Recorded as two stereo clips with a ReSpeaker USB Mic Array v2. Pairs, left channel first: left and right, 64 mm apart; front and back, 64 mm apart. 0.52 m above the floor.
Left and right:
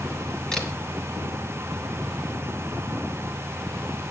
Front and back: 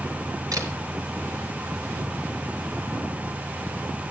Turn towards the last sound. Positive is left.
turn(degrees=170)